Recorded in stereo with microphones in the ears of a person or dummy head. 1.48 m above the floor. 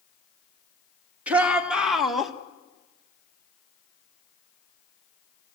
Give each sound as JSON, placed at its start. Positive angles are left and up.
{"t": 1.3, "sound": "a shout", "side_deg": -10, "distance_m": 3.0}